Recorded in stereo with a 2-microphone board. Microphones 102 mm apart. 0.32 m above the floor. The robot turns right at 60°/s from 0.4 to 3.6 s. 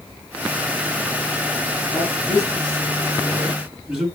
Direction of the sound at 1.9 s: 65° left (ahead or behind).